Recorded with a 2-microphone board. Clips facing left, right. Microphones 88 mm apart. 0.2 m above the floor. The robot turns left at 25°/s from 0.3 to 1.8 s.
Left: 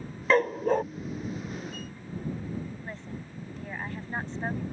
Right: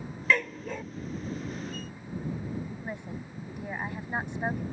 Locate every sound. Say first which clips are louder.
0.3 s a dog barking: left 6 dB; 40° left (ahead or behind); by 0.8 s 50° left (ahead or behind)
2.8 s a woman speaking: right 2 dB; 15° right (ahead or behind)